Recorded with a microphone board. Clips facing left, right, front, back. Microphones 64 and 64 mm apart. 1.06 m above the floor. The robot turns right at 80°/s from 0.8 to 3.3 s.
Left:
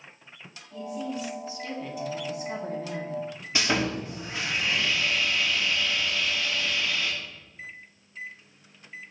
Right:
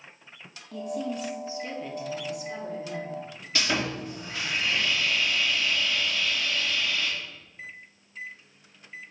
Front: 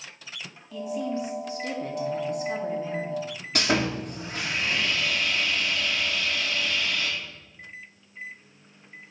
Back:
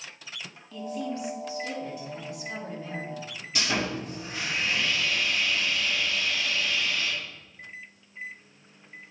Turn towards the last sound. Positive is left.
turn(degrees=20)